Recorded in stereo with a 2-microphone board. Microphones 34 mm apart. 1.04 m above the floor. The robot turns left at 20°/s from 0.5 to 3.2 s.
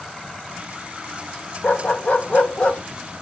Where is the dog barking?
60° left (ahead or behind), 1.3 m; by 2.8 s 40° left (ahead or behind), 1.3 m.